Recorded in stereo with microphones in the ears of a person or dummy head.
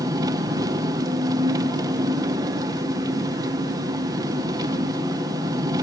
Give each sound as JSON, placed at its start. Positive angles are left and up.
{"t": 0.0, "sound": "an engine running", "side_deg": -25, "distance_m": 1.3}